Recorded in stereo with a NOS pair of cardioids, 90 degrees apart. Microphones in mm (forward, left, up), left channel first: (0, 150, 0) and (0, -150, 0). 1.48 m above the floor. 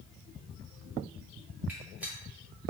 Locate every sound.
1.7 s a gunshot: 5° right, 1.2 m